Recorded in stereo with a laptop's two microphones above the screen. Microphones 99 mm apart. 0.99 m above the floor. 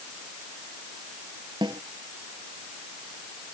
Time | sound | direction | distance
1.6 | a snare drum | 45° right (ahead or behind) | ?